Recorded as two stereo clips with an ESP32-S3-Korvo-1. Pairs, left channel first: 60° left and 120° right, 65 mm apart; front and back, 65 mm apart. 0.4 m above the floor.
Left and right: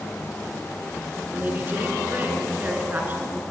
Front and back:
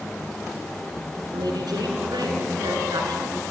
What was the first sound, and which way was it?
A woman speaking, 175° left.